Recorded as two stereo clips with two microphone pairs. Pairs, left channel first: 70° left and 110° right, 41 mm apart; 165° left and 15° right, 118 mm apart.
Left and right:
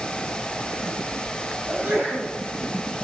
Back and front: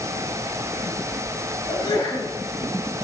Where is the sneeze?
145° right, 3.5 m.